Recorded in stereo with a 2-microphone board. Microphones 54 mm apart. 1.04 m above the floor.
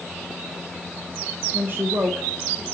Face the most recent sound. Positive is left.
turn(degrees=-40)  # may be behind; listen again after turning